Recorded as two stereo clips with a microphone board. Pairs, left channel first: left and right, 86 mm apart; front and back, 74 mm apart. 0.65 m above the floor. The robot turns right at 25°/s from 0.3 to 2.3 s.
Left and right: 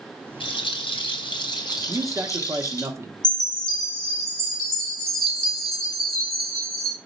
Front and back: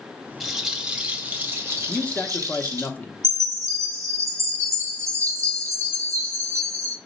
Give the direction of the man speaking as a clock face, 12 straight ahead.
2 o'clock.